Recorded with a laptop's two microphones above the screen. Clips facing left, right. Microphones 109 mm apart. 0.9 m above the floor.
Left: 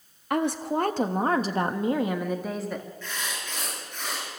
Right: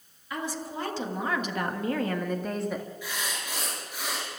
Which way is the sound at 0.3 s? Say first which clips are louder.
Left 9 dB; 65° left (ahead or behind).